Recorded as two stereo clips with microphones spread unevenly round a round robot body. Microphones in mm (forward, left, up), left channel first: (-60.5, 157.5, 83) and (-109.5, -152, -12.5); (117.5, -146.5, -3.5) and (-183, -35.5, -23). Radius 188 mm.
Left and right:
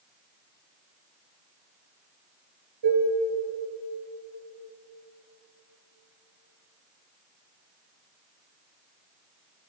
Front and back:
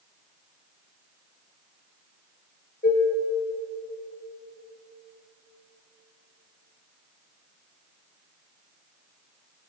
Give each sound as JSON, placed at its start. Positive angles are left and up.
{"t": 2.8, "sound": "dishes clattering", "azimuth_deg": -85, "distance_m": 4.5}